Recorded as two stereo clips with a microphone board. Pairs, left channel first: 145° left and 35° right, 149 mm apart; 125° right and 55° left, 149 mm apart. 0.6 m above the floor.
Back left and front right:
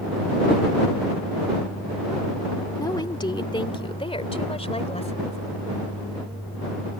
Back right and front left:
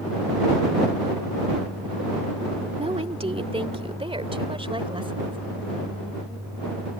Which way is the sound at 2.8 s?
90° left.